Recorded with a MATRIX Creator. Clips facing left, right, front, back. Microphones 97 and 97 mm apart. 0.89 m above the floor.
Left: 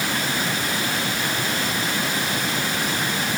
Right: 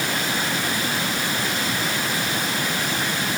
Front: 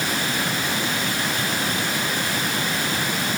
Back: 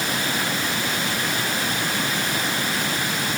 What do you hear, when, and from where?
Only background noise.